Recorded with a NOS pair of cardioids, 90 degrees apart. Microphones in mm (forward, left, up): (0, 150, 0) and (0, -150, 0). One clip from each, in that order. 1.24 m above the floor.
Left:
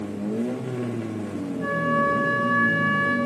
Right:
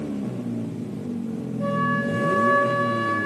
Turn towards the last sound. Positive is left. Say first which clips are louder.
# left 1 dB
turn(degrees=-70)